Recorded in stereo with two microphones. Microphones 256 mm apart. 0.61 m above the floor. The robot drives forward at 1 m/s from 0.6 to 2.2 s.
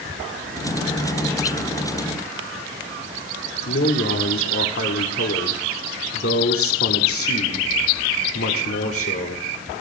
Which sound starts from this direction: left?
A man speaking, at 3.6 s.